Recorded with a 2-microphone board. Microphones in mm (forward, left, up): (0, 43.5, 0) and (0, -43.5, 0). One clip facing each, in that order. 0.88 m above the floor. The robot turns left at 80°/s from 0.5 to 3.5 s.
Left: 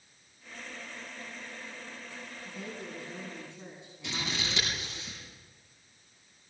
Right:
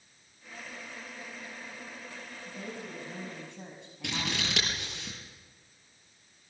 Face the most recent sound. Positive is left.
turn(degrees=-65)  # may be behind; listen again after turning